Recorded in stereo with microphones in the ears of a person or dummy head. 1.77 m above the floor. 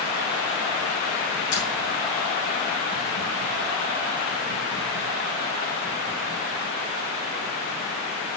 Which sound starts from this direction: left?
Keys jangling, at 1.5 s.